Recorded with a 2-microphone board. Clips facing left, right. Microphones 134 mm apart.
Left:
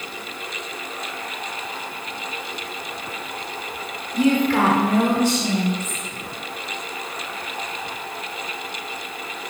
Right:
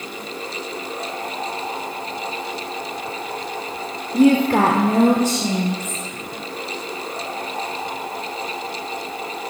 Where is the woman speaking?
45° right (ahead or behind), 0.9 m; by 6.0 s 35° right (ahead or behind), 1.8 m.